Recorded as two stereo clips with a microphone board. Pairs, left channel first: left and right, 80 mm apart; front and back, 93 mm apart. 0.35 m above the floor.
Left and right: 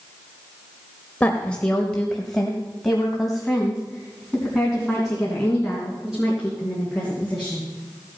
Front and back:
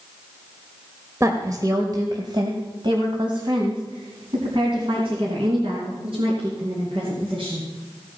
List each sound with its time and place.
1.2 s a woman speaking: 150° left, 1.1 m; by 7.7 s 170° right, 4.5 m